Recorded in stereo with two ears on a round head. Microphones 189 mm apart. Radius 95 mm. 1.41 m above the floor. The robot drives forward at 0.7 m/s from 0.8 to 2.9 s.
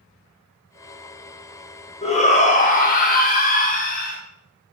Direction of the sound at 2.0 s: 30° left (ahead or behind).